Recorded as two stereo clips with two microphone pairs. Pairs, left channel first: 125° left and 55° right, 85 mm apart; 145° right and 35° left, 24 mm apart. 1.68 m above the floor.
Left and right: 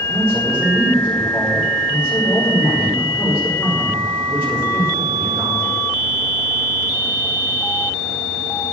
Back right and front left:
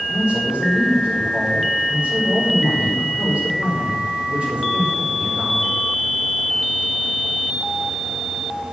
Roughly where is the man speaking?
Ahead left.